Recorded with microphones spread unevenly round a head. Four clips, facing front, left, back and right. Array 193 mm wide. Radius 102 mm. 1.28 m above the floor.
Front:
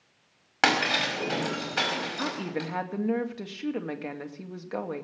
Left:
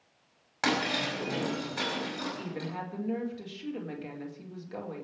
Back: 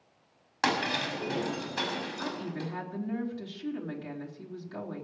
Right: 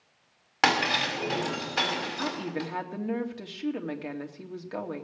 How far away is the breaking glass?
About 5.5 m.